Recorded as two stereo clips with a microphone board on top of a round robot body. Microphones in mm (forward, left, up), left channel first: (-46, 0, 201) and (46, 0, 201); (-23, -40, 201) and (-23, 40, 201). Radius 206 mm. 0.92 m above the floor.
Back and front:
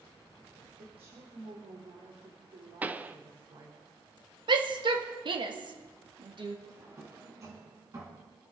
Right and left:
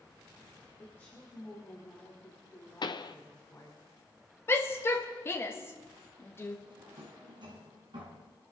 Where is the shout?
30° right, 2 m.